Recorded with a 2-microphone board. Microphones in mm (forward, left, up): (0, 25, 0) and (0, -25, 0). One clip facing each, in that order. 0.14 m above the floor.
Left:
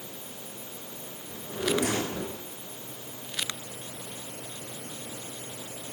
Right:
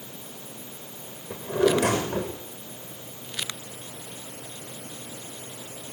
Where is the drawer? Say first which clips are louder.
Right 7 dB; 70° right (ahead or behind), 7 m.